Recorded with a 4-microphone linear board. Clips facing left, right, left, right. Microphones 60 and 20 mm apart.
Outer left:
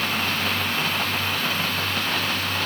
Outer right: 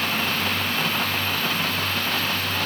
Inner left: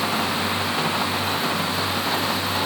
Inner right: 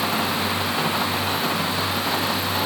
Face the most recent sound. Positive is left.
No sound to turn to.